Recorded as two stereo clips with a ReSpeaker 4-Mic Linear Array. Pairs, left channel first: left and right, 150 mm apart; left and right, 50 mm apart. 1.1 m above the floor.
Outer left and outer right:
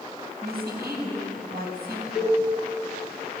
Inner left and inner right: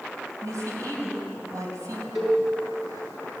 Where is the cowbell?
Centre (ahead or behind), 7.5 m.